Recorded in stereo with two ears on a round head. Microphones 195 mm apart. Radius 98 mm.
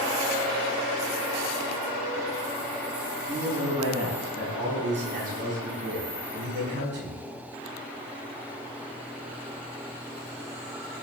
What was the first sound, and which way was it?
A man speaking, 20° right (ahead or behind).